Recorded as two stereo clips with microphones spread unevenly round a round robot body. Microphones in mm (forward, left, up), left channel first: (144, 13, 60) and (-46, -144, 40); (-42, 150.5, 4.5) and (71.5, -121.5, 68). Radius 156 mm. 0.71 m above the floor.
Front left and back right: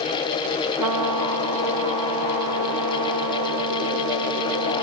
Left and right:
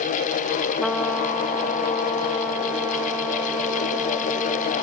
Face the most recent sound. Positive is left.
turn(degrees=-155)